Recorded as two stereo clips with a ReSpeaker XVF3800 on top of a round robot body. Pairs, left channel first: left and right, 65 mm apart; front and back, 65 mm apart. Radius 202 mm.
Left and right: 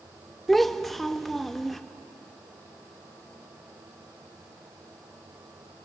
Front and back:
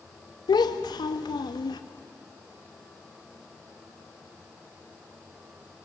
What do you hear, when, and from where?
0.5 s a child speaking: straight ahead, 1.0 m